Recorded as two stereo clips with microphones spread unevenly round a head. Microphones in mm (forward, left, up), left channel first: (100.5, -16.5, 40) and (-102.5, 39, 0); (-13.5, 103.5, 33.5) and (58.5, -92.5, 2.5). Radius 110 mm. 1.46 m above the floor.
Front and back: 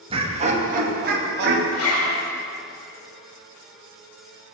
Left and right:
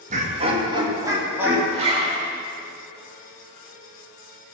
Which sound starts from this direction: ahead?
A zipper, at 1.7 s.